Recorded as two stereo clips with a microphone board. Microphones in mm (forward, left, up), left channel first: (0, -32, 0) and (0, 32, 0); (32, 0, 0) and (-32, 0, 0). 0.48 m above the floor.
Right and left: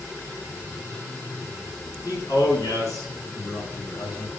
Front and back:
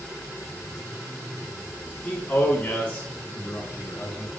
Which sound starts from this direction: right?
A man speaking, at 2.0 s.